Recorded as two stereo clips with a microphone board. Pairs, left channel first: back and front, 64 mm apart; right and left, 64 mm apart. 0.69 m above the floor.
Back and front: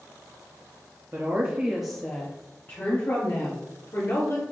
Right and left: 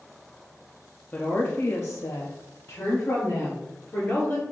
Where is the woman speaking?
35° right, 0.7 m; by 4.4 s 150° right, 1.6 m.